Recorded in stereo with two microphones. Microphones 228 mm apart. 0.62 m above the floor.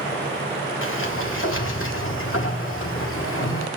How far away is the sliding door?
About 1.6 m.